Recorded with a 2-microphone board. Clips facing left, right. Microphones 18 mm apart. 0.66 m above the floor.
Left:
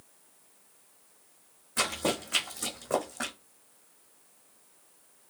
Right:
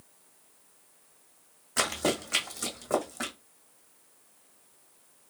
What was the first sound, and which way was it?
Running footsteps, 40° right (ahead or behind).